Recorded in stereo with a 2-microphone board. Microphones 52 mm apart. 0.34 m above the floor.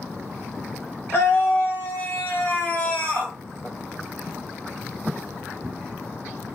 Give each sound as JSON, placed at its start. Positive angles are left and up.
{"t": 1.1, "sound": "a scream", "side_deg": 45, "distance_m": 2.0}